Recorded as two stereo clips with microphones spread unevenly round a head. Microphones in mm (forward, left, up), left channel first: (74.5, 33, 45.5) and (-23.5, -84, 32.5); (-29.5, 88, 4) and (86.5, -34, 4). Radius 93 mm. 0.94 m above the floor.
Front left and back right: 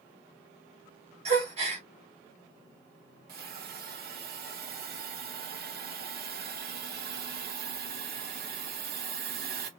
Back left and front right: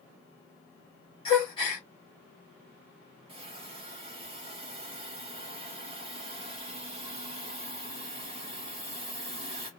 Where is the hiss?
110° right, 0.8 m.